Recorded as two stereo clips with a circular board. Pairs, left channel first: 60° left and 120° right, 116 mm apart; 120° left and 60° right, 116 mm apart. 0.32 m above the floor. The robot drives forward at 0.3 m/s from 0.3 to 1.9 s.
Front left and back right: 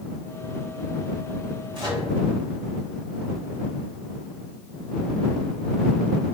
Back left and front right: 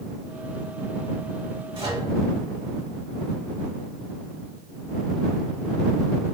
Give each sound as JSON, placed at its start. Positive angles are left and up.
{"t": 1.7, "sound": "a microwave", "azimuth_deg": -90, "distance_m": 1.6}